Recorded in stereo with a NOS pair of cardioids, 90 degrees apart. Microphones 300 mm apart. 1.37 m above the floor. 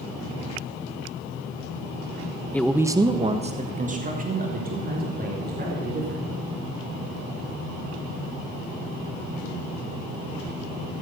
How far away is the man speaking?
About 0.7 m.